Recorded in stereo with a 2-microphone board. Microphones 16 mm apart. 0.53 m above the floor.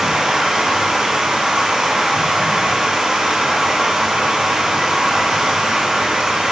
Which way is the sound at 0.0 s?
85° right.